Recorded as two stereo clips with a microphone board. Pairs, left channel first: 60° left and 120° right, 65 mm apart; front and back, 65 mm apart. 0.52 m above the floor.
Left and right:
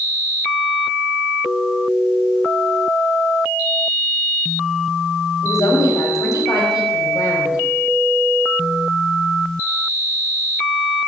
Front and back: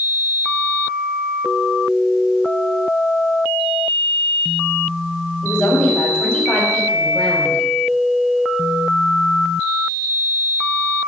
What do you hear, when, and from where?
5.4 s a woman speaking: 75° left, 3.5 m